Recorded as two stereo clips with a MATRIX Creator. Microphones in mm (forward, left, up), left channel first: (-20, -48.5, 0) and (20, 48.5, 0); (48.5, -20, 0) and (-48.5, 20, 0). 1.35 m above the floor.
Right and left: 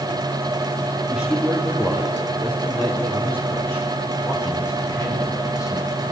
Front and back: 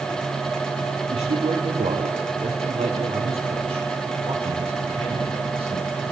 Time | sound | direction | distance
1.1 | a man speaking | 150° left | 3 m